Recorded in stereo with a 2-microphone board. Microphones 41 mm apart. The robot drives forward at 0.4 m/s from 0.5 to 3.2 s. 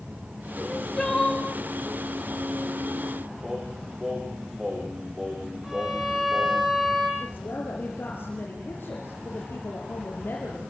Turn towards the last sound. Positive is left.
turn(degrees=55)  # may be behind; listen again after turning